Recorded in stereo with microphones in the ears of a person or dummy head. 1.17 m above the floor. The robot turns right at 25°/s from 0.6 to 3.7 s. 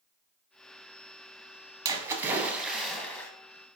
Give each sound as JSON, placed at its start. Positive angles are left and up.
{"t": 1.9, "sound": "a splash", "azimuth_deg": -25, "distance_m": 0.7}